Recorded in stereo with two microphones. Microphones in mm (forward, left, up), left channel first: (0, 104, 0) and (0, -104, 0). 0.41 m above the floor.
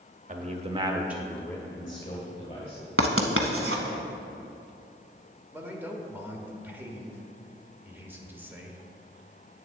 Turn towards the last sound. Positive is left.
turn(degrees=-10)  # may be behind; listen again after turning